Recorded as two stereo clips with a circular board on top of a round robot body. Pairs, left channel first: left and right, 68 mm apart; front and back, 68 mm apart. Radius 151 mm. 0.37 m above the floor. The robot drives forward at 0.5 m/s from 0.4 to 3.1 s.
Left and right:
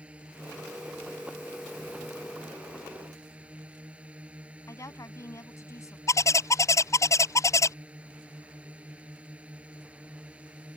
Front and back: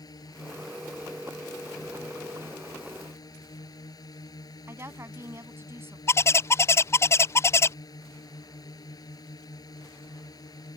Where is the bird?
50° left.